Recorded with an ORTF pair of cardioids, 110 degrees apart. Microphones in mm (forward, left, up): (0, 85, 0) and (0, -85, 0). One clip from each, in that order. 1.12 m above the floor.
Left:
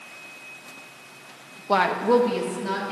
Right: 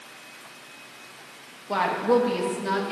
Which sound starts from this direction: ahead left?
A woman speaking, at 1.7 s.